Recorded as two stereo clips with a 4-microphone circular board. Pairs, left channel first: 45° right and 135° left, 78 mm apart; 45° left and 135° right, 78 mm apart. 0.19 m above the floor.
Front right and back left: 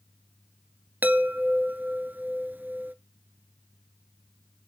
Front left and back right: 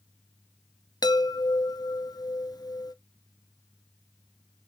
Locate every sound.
1.0 s a chime: 70° left, 0.9 m